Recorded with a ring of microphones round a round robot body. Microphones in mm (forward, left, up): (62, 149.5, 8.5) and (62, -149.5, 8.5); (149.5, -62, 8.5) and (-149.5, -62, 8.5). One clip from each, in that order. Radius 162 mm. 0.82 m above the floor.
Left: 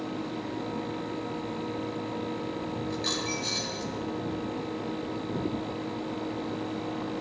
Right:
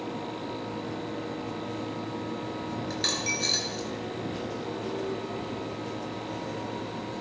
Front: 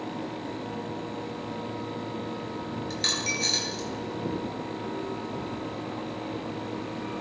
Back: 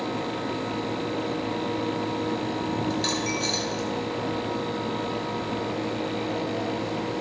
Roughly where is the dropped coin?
Right.